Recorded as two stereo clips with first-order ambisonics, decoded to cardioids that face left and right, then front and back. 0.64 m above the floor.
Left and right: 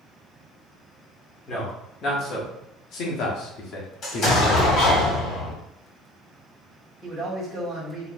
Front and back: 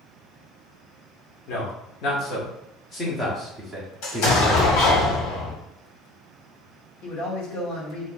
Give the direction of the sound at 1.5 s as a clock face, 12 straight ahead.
11 o'clock.